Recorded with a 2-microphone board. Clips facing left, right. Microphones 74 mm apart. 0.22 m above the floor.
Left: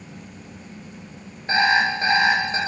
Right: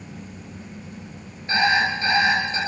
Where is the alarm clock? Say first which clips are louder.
Left 1 dB; 25° left (ahead or behind), 1.8 m.